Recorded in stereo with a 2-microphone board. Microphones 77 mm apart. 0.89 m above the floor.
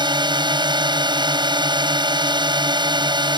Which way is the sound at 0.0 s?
80° right.